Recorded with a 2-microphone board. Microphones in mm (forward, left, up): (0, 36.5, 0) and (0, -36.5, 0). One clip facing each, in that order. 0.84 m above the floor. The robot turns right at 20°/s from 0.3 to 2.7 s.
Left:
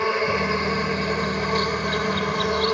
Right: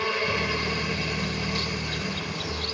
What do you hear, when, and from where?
0.0 s an insect: 30° left; by 2.7 s 75° left